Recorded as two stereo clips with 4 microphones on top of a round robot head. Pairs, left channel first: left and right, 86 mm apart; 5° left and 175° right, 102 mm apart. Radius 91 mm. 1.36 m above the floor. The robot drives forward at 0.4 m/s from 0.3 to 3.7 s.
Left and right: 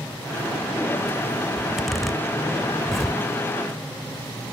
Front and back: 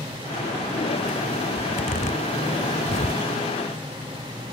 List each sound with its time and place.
1.6 s a zipper: straight ahead